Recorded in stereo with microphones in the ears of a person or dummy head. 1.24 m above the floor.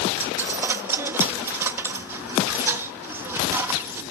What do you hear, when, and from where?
0.2 s a dropped coin: 5° right (ahead or behind)